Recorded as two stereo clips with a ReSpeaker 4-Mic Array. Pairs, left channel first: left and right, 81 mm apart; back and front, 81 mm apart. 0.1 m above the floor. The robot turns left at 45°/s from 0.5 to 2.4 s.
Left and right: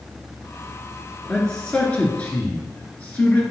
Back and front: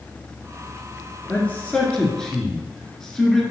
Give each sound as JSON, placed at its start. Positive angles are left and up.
{"t": 1.3, "sound": "a man speaking", "azimuth_deg": 160, "distance_m": 1.7}